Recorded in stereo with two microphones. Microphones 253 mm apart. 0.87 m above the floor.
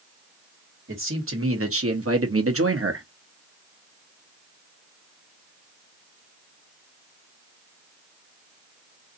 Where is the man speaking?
55° right (ahead or behind), 1.6 m.